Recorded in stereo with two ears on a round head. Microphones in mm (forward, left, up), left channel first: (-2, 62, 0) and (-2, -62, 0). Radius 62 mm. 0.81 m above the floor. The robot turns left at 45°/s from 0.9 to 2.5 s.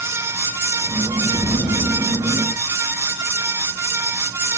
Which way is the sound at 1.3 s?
145° left.